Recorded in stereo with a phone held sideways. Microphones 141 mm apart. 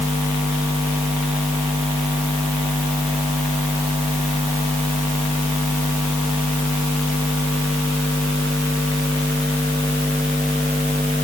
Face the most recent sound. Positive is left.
No sound to turn to.